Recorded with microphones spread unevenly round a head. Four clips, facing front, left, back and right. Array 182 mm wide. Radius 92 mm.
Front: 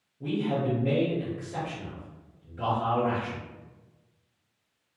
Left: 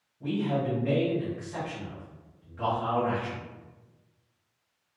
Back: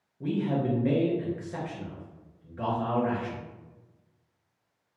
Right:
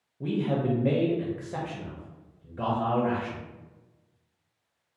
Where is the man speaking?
105° right, 0.6 m.